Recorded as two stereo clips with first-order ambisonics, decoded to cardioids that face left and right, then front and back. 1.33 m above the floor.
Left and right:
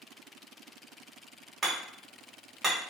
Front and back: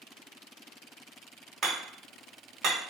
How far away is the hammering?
About 1.2 m.